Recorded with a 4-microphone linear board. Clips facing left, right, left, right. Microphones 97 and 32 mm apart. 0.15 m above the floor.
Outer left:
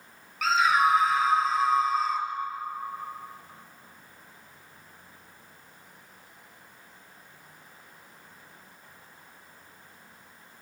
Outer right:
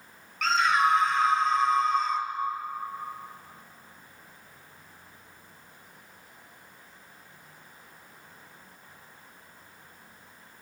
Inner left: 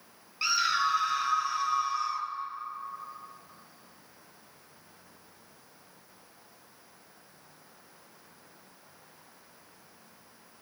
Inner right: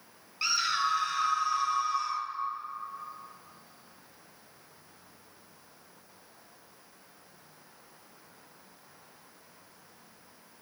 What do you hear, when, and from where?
0.4 s a scream: 5° left (ahead or behind), 3 m